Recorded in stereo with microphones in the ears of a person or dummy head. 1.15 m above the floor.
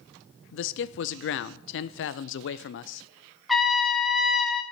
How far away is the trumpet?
About 1.3 m.